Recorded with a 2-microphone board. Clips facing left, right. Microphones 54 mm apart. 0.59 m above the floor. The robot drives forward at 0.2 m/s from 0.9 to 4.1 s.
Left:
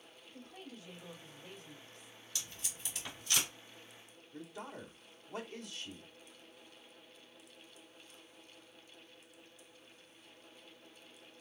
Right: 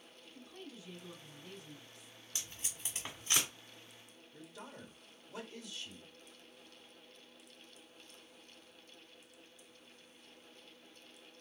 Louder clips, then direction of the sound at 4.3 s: Left 5 dB; 40° left (ahead or behind).